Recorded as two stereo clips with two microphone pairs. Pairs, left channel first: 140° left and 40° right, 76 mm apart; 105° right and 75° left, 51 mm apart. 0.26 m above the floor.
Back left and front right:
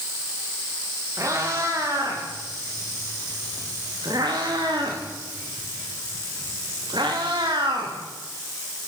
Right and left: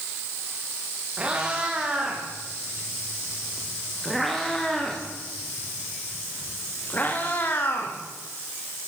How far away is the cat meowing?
About 9.5 m.